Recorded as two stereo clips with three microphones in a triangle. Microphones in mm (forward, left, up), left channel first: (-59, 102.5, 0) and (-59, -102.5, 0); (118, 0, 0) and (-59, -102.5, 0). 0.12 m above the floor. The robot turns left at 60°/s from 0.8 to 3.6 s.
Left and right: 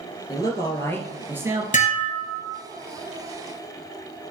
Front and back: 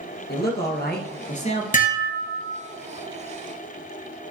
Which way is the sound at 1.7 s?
55° left.